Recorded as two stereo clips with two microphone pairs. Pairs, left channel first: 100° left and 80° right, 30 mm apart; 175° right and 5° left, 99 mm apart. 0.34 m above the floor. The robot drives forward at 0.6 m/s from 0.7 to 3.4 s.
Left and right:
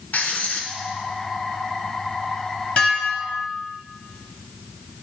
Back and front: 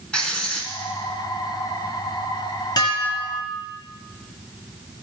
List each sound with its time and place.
0.1 s writing: 105° left, 0.9 m
2.8 s dishes clattering: 145° left, 1.1 m; by 3.6 s 155° left, 1.4 m